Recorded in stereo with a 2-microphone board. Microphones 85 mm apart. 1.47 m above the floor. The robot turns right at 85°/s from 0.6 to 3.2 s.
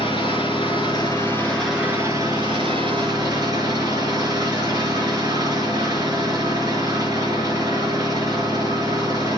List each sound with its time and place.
0.0 s an engine running: 90° left, 5 m; by 9.4 s 50° right, 5 m